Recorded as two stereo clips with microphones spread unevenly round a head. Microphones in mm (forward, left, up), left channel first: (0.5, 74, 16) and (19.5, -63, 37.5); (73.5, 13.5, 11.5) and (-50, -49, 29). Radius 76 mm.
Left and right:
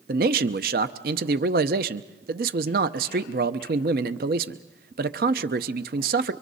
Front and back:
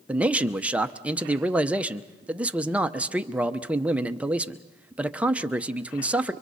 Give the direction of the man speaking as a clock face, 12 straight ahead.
3 o'clock.